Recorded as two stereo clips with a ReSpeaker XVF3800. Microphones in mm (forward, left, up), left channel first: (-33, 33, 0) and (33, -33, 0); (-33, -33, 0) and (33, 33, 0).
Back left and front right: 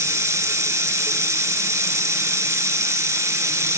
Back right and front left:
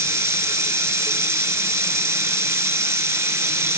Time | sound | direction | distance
0.0 | running water | straight ahead | 1.7 m